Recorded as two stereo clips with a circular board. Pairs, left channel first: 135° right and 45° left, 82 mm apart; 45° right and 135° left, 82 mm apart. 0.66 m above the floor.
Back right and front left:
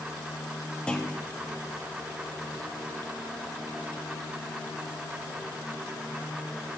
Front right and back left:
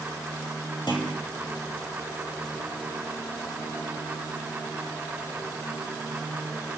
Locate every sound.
0.9 s a clunk: 55° right, 2 m